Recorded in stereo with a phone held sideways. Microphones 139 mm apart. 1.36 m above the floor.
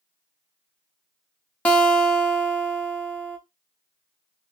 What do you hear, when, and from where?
1.6 s a guitar: 10° left (ahead or behind), 0.6 m